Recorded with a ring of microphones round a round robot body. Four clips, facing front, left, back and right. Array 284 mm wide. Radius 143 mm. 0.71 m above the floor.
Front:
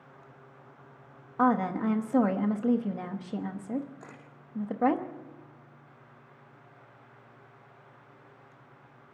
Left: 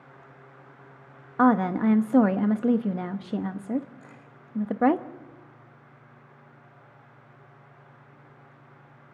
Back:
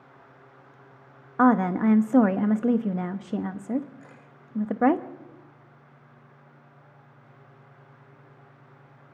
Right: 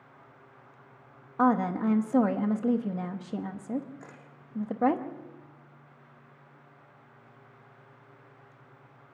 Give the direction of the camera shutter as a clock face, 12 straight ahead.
1 o'clock.